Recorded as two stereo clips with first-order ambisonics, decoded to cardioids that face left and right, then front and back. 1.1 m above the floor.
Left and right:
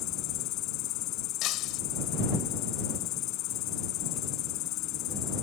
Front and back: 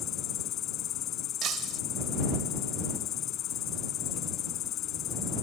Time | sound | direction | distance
0.0 | an insect | 50° left | ?
1.4 | breaking glass | 130° left | ?